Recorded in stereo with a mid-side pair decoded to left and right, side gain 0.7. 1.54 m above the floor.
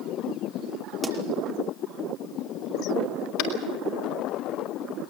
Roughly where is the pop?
Ahead.